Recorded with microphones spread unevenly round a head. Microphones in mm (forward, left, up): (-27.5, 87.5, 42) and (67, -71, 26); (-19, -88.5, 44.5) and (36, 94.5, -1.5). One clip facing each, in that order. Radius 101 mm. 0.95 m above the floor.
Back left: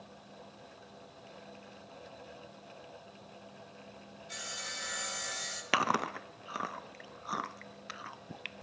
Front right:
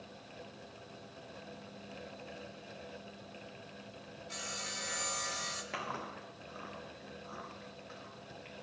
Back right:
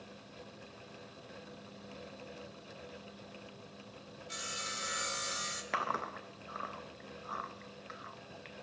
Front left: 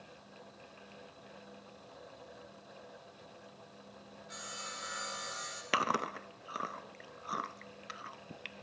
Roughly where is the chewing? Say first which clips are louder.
Back left 11 dB, front left 4 dB; behind left.